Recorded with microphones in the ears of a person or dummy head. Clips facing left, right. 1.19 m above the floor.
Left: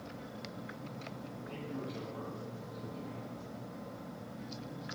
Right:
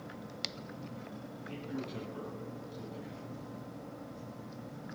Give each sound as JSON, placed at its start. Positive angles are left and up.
{"t": 1.5, "sound": "a man speaking", "side_deg": -25, "distance_m": 10.0}